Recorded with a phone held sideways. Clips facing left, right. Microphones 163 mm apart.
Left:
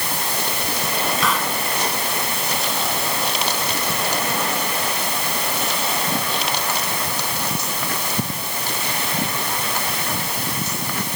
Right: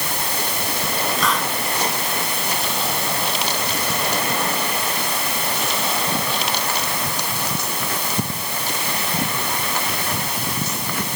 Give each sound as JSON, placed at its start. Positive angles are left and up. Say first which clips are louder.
{"t": 1.2, "sound": "a hiss", "louder": "right 1 dB", "side_deg": 0}